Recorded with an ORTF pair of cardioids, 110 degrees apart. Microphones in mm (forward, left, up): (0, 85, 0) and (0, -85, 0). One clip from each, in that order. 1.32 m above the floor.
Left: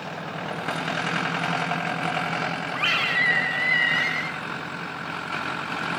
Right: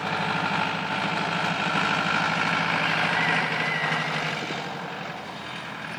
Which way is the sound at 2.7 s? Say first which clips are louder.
Left 1 dB; 45° left.